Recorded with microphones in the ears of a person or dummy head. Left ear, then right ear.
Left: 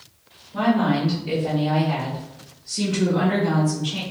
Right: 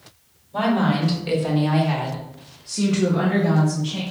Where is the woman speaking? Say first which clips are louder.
Even; 60° right (ahead or behind), 1.6 m; by 4.0 s 35° left (ahead or behind), 1.0 m.